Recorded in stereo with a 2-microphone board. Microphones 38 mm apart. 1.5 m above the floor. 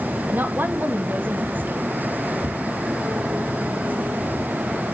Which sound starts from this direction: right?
A woman speaking, at 0.3 s.